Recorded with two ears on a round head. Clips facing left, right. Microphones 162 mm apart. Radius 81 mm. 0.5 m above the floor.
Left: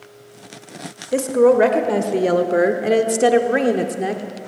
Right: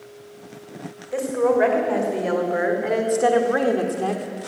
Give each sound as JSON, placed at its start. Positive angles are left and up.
{"t": 1.1, "sound": "a woman speaking", "side_deg": 55, "distance_m": 2.5}